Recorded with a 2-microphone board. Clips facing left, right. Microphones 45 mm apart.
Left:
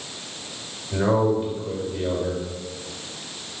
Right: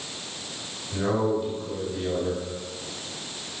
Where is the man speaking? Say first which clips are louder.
Left 4 dB; 30° left (ahead or behind), 4 m.